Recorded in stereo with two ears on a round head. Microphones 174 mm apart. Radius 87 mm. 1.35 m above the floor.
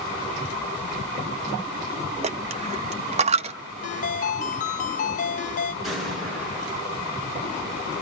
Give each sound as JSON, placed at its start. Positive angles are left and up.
{"t": 2.2, "sound": "a dropped coin", "side_deg": -35, "distance_m": 0.7}
{"t": 3.8, "sound": "a ringtone", "side_deg": 40, "distance_m": 0.8}
{"t": 5.8, "sound": "an explosion", "side_deg": 0, "distance_m": 10.0}